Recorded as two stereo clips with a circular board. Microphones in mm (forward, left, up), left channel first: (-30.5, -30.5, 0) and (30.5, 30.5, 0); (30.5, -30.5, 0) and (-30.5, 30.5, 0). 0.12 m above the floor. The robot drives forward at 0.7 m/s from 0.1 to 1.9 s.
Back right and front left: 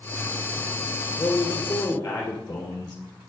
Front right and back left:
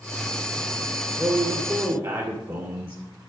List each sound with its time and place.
1.2 s a man speaking: 165° left, 1.9 m; by 3.0 s 170° left, 2 m